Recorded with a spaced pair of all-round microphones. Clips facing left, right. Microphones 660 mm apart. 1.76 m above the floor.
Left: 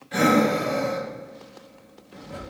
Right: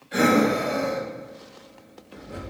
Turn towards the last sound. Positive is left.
turn(degrees=25)  # may be behind; listen again after turning